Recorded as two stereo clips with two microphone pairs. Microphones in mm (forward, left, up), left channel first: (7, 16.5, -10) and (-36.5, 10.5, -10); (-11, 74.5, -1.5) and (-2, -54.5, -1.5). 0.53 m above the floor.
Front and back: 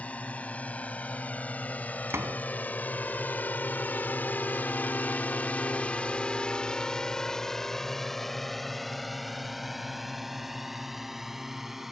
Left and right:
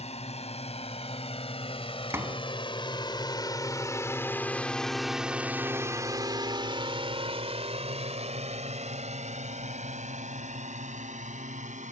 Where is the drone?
65° left; by 11.9 s 90° right.